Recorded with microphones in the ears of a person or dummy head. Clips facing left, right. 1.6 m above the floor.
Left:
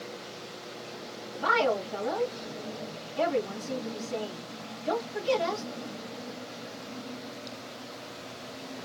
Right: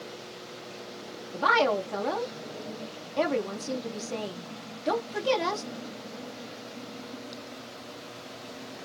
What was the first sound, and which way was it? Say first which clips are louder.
A woman speaking: right 2 dB; 60° right (ahead or behind).